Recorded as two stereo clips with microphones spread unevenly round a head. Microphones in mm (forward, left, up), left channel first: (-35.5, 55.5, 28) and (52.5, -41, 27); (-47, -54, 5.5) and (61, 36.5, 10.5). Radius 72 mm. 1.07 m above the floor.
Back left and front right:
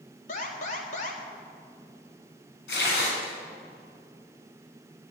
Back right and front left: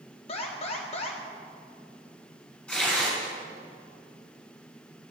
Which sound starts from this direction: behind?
An alarm, at 0.3 s.